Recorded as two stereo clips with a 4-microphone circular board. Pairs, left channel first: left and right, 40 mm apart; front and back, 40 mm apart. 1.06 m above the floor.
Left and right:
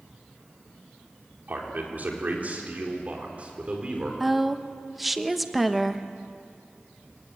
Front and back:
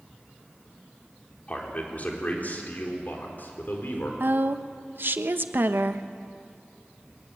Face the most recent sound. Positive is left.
turn(degrees=-175)